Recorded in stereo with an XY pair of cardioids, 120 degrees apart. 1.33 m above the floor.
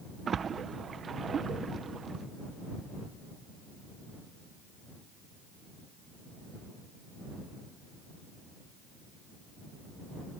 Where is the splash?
40° right.